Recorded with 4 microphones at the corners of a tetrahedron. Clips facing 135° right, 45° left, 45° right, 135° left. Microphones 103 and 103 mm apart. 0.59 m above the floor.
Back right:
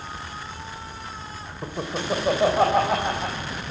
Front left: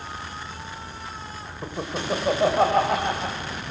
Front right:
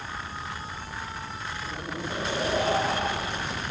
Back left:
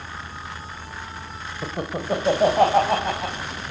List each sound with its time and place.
1.6 s laughter: 135° left, 2.5 m; by 3.4 s 140° left, 3.5 m